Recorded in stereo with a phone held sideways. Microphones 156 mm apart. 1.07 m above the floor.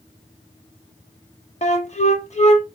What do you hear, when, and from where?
1.6 s a flute: 50° left (ahead or behind), 0.7 m